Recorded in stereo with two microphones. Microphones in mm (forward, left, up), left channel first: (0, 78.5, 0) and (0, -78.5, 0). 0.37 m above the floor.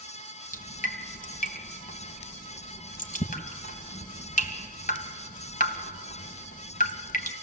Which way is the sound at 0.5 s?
60° left (ahead or behind).